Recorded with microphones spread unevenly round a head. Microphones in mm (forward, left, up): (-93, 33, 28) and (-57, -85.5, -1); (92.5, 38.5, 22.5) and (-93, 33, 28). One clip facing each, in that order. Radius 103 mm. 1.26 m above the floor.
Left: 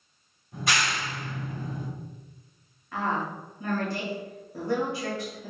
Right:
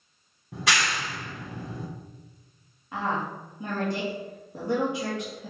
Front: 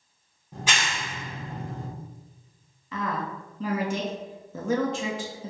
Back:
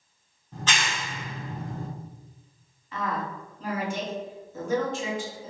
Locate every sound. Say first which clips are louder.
0.5 s a clap: right 1 dB, even; 80° right, 3 m
2.9 s a woman speaking: even, even; straight ahead, 2 m